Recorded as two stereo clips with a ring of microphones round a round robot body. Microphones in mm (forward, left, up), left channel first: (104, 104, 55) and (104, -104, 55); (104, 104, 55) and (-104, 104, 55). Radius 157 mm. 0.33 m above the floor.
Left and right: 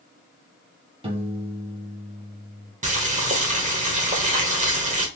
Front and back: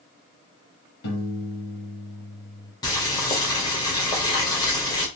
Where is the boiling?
60° right, 1.6 m.